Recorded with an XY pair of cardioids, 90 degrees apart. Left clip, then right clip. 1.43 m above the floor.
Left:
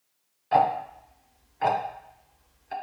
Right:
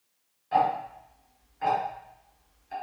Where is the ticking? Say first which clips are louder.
Left 3 dB; 60° left, 0.5 m.